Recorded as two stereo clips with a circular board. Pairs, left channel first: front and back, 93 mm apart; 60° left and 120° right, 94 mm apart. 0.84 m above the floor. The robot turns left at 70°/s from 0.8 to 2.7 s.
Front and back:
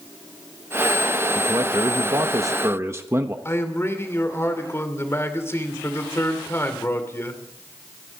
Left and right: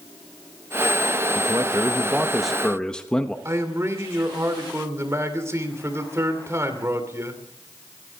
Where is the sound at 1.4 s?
130° right, 1.0 m; by 3.4 s 135° left, 1.0 m.